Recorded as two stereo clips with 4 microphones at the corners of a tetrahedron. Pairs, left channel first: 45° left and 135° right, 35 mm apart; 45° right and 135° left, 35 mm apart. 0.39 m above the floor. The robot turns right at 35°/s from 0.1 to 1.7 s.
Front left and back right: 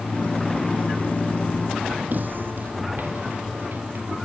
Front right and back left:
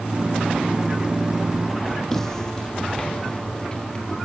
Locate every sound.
2.1 s footsteps: 125° right, 0.7 m; by 4.2 s 110° right, 3.5 m